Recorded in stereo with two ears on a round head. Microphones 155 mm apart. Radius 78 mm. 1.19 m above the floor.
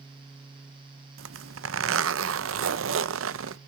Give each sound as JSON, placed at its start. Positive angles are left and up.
{"t": 1.2, "sound": "a zipper", "side_deg": -85, "distance_m": 0.6}